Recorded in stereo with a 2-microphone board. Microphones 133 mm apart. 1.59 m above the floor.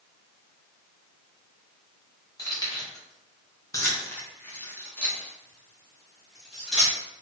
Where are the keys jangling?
25° left (ahead or behind), 1.1 m; by 7.0 s 5° right (ahead or behind), 1.7 m.